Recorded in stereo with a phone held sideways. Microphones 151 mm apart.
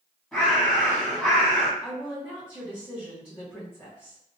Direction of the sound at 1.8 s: Centre (ahead or behind).